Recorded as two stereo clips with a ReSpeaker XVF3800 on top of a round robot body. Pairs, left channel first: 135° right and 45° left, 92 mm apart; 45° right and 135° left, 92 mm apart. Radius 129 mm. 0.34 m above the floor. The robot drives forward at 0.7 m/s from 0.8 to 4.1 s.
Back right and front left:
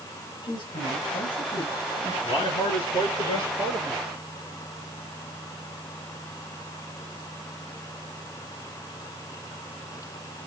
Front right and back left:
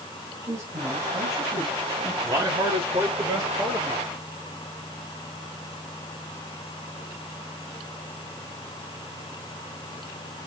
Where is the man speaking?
170° right, 7 m; by 4.0 s 175° right, 8 m.